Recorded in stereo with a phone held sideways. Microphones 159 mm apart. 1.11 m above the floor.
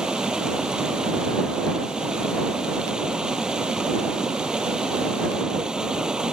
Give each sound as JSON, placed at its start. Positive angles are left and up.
{"t": 0.0, "sound": "running water", "side_deg": -5}